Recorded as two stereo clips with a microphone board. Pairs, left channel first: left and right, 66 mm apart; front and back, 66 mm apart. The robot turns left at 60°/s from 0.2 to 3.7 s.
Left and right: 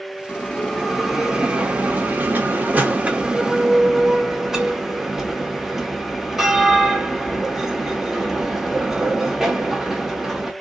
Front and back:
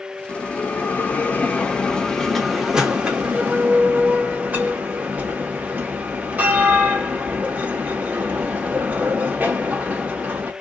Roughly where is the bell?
Ahead left.